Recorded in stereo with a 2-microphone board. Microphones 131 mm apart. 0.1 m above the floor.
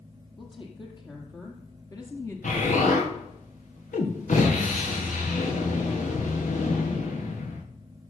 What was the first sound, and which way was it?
A woman speaking, 40° left (ahead or behind).